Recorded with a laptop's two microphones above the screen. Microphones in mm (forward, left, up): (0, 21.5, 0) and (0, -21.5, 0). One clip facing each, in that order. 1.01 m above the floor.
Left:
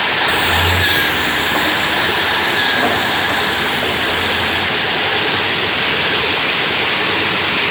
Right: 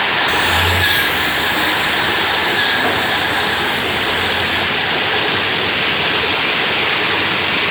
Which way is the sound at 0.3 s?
20° left (ahead or behind).